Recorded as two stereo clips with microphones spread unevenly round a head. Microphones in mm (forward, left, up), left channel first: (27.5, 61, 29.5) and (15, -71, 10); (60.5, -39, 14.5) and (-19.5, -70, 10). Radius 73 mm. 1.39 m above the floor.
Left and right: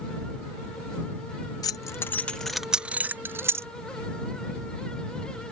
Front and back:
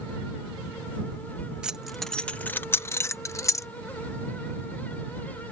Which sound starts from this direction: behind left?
Keys jangling, at 1.6 s.